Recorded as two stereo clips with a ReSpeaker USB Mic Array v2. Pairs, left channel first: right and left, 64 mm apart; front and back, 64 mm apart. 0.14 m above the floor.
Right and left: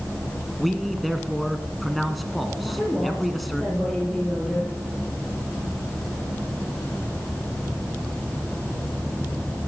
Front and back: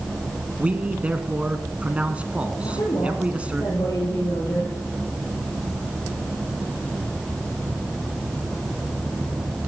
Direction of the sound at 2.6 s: Straight ahead.